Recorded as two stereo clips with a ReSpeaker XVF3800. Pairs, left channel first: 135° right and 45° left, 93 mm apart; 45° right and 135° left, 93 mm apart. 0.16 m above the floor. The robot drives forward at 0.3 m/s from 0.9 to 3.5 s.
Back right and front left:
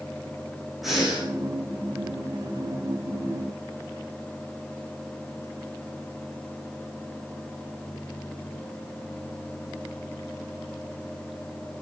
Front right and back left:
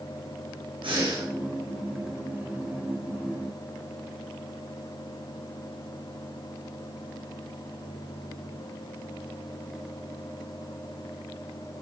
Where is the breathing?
135° left, 5.5 m.